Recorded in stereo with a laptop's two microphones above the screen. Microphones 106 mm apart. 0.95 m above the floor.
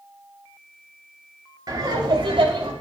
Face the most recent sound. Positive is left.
turn(degrees=-60)  # may be behind; listen again after turning